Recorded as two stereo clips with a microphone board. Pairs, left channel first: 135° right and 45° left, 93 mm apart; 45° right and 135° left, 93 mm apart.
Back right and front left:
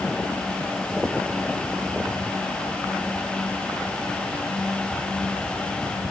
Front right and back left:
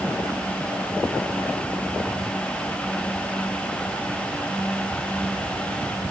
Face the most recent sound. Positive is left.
No sound to turn to.